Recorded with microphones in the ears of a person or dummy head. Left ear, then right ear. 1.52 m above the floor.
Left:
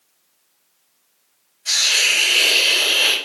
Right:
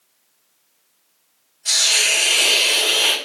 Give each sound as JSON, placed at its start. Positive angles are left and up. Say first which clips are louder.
{"t": 1.6, "sound": "a hiss", "louder": "even", "side_deg": -35, "distance_m": 1.8}